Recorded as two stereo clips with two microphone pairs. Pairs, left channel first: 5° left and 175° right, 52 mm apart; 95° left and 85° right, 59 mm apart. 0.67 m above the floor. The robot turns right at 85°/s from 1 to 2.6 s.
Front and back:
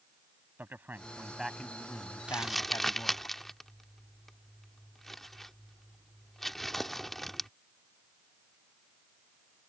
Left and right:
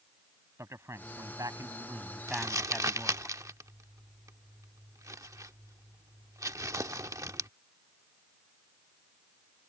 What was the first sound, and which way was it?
A man speaking, 125° right.